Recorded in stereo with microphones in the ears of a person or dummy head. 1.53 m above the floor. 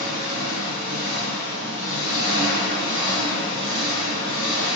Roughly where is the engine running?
Right.